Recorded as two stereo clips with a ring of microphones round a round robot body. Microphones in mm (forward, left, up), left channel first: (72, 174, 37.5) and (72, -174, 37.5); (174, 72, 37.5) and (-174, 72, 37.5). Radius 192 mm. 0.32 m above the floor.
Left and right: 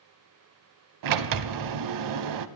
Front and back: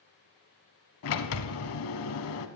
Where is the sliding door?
55° right, 0.7 m.